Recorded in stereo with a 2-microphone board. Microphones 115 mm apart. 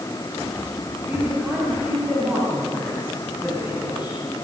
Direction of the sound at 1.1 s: 10° right (ahead or behind).